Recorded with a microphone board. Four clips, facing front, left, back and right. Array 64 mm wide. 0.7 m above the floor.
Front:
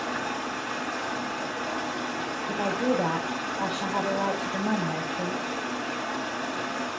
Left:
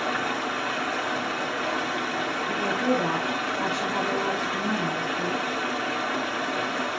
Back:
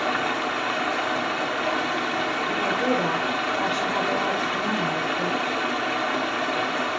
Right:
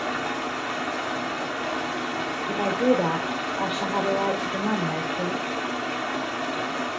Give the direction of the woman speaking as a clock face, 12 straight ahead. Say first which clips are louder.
Right 4 dB, back 1 dB; 3 o'clock.